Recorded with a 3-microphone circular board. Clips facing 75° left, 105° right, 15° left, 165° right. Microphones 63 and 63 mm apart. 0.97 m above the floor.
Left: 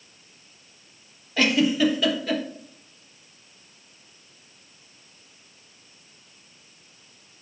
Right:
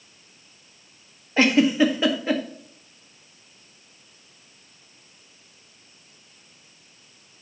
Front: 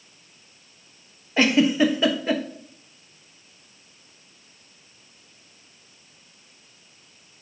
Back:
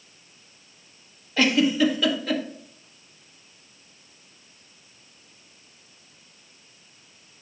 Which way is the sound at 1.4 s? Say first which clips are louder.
Right 3 dB, front 2 dB; 45° right.